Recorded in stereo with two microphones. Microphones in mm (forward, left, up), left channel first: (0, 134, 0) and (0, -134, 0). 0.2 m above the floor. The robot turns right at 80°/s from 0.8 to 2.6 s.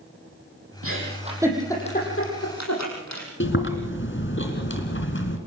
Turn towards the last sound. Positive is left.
turn(degrees=45)  # may be behind; listen again after turning